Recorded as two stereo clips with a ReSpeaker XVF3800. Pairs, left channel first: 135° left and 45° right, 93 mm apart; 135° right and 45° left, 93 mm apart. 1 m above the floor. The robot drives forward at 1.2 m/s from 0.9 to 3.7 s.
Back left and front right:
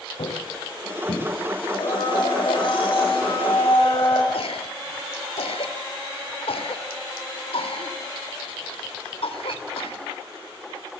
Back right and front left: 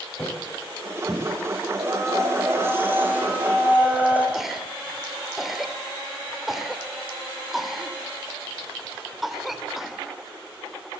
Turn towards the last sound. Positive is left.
turn(degrees=130)